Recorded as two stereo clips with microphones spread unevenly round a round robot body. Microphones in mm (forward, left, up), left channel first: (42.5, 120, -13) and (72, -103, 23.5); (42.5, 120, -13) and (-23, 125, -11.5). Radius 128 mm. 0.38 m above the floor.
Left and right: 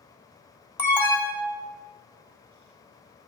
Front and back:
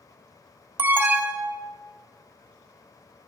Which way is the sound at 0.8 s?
155° left.